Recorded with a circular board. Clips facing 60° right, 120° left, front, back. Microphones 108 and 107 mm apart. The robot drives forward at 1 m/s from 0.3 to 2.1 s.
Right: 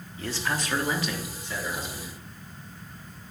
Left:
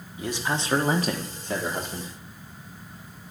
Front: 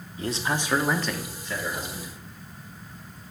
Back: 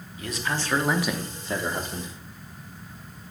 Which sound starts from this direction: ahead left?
A man speaking, at 0.2 s.